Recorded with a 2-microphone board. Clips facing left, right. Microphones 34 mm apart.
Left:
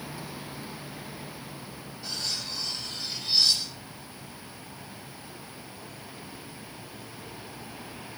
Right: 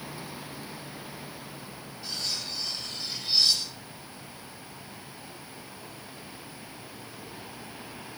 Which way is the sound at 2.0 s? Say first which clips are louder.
Even; centre (ahead or behind).